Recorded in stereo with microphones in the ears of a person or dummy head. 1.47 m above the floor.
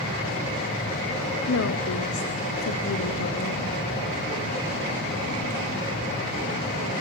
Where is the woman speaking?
70° left (ahead or behind), 0.8 m.